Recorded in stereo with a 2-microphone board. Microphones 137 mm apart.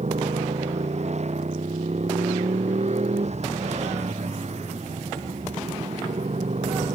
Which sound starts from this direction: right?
A motorcycle, at 0.0 s.